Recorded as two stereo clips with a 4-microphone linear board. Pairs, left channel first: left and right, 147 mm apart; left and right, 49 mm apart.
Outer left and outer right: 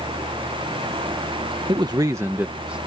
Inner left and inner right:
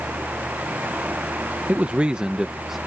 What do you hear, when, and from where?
1.7 s a man speaking: 35° right (ahead or behind); by 2.8 s 5° right (ahead or behind)